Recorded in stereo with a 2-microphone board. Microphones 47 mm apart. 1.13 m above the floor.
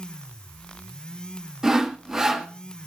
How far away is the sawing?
About 1.2 m.